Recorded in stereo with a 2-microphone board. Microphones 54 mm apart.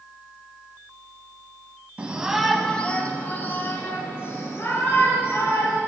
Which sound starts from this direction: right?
A shout, at 2.0 s.